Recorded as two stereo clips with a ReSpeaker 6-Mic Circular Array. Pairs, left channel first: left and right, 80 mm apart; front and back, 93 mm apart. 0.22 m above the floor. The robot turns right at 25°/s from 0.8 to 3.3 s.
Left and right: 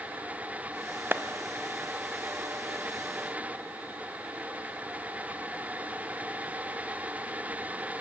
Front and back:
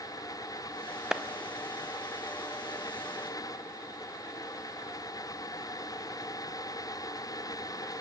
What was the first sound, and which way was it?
A clap, 110° right.